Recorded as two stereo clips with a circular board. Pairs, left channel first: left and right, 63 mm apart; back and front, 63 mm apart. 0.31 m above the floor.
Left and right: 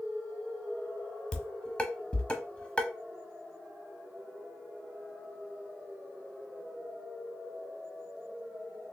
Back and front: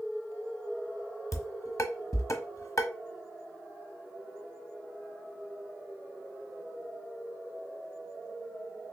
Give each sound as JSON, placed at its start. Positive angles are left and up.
{"t": 1.3, "sound": "dishes clattering", "azimuth_deg": 160, "distance_m": 1.0}